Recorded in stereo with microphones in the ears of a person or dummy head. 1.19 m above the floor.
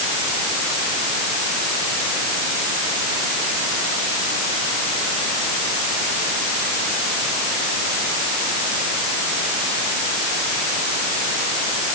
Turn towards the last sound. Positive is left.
No sound to turn to.